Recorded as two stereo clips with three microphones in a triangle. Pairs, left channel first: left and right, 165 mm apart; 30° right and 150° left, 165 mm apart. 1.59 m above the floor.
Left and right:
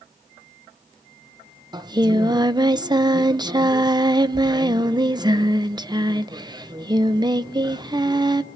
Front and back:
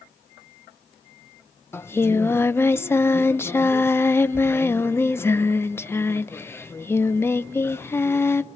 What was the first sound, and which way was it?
Singing, 85° right.